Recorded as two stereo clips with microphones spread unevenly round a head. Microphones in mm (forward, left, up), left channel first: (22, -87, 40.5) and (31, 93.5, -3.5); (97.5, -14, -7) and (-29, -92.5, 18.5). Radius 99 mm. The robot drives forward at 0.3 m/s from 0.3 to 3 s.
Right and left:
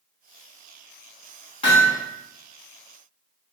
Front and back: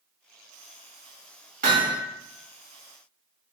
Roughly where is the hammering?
Behind right.